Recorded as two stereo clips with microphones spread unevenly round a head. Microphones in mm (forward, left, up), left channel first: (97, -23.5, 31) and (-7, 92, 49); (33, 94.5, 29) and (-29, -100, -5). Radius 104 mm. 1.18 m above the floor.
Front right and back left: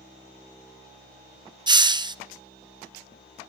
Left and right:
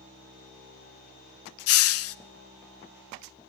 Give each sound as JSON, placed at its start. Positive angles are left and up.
{"t": 1.7, "sound": "a hiss", "azimuth_deg": 70, "distance_m": 0.8}